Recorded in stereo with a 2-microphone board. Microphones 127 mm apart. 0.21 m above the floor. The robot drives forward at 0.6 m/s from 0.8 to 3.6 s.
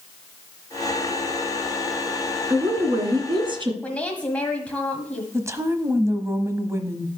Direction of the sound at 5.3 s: 25° right (ahead or behind).